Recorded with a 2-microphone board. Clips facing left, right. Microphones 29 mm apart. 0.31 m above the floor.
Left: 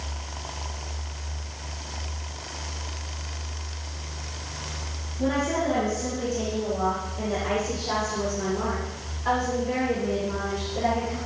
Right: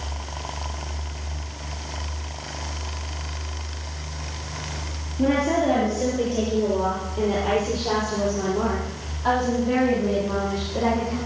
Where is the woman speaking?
65° right (ahead or behind), 6.5 m; by 11.2 s 85° right, 14 m.